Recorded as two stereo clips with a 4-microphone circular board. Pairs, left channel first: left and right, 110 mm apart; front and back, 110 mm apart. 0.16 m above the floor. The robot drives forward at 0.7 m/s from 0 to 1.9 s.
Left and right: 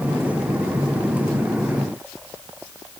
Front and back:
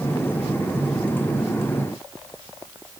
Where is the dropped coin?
I don't hear a dropped coin.